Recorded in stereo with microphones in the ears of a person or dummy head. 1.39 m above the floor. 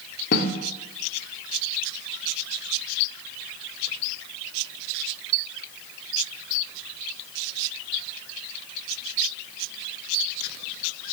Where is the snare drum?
50° left (ahead or behind), 3.5 m.